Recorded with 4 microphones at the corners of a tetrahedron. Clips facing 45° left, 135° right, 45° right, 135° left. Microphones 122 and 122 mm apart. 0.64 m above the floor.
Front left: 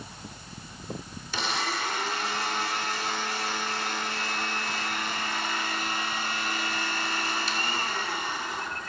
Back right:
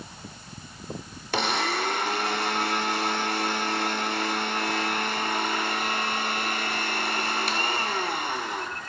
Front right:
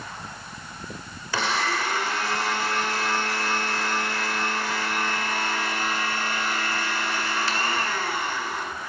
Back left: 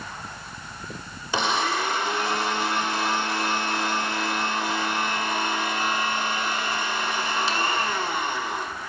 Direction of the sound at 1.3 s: 155° right.